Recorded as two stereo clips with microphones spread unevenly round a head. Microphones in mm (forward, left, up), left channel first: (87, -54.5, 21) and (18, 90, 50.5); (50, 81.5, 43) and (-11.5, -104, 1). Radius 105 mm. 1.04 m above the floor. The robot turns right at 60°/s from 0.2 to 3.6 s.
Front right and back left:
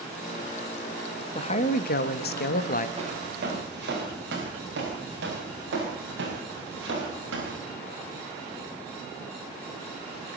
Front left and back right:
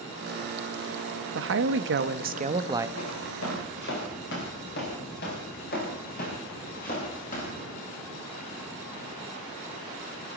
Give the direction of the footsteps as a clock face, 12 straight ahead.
10 o'clock.